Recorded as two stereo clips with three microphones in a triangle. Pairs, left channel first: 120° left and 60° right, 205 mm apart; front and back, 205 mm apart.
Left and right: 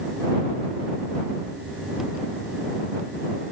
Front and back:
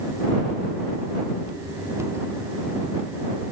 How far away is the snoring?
No snoring in this recording.